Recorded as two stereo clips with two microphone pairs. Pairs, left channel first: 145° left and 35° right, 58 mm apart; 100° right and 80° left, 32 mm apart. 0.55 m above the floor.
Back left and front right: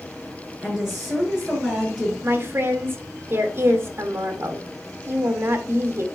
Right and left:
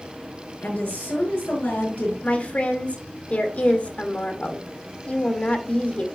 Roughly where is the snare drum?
I don't hear a snare drum.